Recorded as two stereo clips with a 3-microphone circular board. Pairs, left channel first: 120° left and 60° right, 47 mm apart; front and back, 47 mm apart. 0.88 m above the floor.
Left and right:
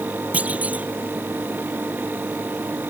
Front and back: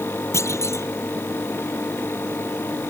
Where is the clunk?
Straight ahead.